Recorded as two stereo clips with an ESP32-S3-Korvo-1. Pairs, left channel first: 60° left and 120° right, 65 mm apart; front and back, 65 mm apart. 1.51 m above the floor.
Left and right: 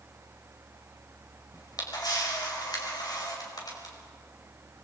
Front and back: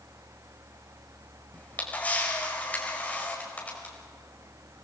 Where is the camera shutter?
70° left, 5 m.